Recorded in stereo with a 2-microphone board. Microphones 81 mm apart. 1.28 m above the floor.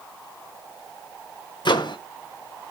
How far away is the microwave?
About 1.0 m.